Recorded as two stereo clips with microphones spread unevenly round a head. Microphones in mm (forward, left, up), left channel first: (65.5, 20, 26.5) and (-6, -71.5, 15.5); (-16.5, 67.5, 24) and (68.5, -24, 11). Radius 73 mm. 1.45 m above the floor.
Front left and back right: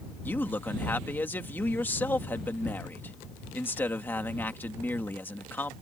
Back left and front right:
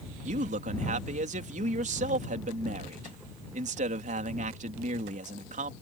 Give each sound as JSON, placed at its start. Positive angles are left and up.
{"t": 0.2, "sound": "a man speaking", "azimuth_deg": -20}